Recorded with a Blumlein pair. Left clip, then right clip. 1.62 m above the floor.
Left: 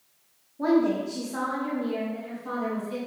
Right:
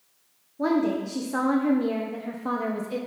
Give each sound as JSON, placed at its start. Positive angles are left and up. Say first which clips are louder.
{"t": 0.6, "sound": "a woman speaking", "louder": "left 1 dB", "azimuth_deg": -10, "distance_m": 1.4}